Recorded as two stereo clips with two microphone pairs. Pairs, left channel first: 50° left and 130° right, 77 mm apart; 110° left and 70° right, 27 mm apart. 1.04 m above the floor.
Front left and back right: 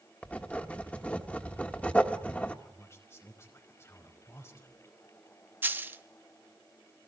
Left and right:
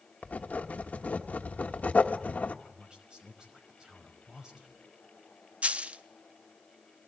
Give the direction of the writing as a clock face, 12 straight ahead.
8 o'clock.